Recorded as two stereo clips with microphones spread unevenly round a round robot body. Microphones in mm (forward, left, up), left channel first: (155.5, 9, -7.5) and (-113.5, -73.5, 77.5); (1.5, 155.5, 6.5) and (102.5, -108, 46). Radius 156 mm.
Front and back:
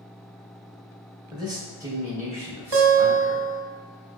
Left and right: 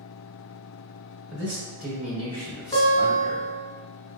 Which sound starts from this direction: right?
A man speaking, at 1.3 s.